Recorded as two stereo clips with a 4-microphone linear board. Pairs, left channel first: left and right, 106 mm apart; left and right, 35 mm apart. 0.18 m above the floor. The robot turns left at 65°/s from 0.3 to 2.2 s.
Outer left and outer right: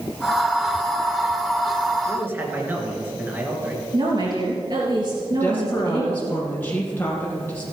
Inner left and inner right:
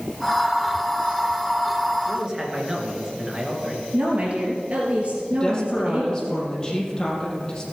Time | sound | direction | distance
2.1 | a man speaking | 30° right (ahead or behind) | 3 m
3.9 | a woman speaking | 45° right (ahead or behind) | 3 m
5.3 | a woman speaking | 20° left (ahead or behind) | 5 m